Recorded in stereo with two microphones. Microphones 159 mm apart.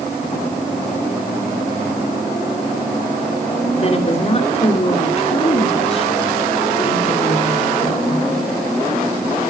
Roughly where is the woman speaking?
Left.